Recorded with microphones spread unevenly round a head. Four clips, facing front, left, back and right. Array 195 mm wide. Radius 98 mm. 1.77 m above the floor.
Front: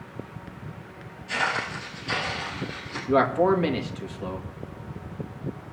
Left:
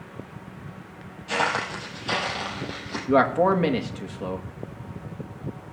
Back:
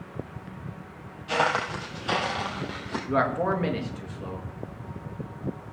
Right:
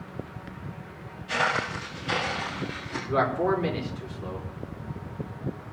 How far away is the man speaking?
About 2.5 m.